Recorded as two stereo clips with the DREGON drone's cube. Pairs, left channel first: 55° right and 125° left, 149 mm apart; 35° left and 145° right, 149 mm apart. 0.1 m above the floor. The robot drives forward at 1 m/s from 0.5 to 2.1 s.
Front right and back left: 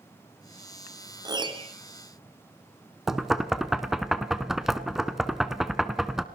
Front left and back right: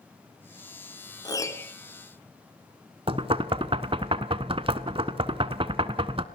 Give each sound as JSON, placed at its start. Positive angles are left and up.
{"t": 1.2, "sound": "a piano", "azimuth_deg": 80, "distance_m": 1.5}
{"t": 3.1, "sound": "knocking", "azimuth_deg": -150, "distance_m": 1.0}